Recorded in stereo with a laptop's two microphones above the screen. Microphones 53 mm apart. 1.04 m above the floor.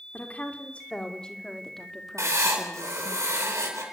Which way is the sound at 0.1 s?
30° left (ahead or behind).